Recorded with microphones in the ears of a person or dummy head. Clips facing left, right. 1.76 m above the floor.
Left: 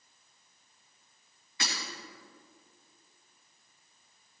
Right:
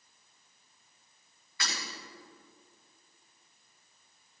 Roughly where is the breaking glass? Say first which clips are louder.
Left 2 dB; left.